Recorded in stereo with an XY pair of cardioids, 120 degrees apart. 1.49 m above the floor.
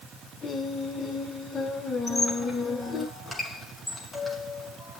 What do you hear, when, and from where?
0.4 s singing: 35° left, 5 m
2.1 s a squeak: 20° left, 7 m